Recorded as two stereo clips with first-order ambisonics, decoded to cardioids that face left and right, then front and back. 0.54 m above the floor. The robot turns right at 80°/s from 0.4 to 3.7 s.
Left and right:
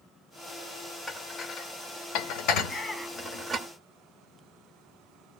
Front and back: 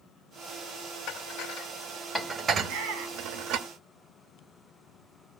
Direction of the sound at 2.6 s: 130° left.